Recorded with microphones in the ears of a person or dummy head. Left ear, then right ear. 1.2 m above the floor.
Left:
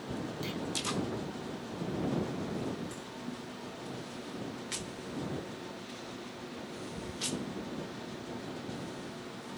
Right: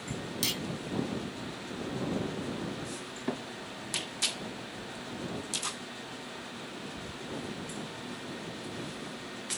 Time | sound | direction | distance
0.4 | a clunk | 50° right (ahead or behind) | ?